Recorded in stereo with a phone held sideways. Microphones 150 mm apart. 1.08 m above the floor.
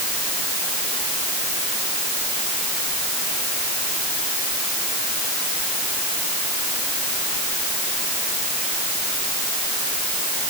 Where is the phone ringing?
No phone ringing in this recording.